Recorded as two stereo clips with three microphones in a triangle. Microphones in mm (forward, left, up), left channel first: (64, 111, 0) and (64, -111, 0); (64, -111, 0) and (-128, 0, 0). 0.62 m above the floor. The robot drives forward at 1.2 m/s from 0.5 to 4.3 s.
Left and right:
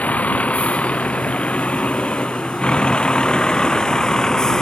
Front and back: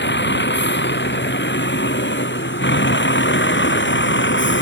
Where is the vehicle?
5° left; by 4.6 s straight ahead.